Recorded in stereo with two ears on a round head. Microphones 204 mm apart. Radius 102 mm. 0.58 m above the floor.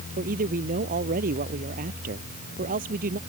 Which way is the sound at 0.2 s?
40° right (ahead or behind).